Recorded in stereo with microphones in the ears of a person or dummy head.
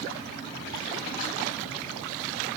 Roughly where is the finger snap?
I don't hear a finger snap.